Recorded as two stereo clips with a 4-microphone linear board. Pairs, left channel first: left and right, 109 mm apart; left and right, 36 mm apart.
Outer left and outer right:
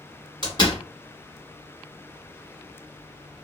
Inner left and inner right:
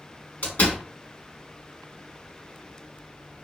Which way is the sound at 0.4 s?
45° left (ahead or behind).